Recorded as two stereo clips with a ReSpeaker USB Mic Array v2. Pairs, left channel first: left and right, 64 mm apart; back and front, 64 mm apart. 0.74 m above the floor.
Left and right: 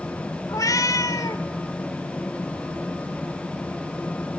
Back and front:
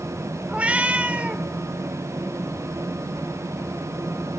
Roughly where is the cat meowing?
Left.